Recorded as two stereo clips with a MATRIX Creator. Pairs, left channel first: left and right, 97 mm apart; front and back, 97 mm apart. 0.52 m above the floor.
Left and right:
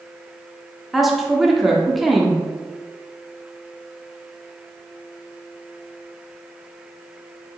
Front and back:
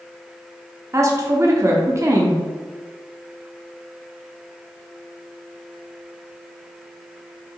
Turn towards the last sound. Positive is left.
turn(degrees=-175)